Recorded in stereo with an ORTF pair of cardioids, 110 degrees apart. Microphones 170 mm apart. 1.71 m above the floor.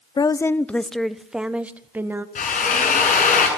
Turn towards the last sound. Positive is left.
turn(degrees=50)